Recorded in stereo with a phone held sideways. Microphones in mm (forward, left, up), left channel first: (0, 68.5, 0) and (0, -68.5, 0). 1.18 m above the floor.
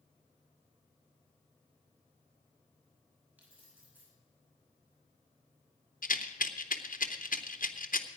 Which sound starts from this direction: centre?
Keys jangling, at 3.4 s.